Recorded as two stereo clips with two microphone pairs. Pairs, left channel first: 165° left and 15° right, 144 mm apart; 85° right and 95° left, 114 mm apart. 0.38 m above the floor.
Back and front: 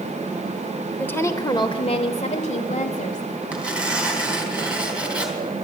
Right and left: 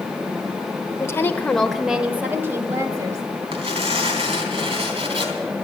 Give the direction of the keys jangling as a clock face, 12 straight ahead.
I don't hear keys jangling.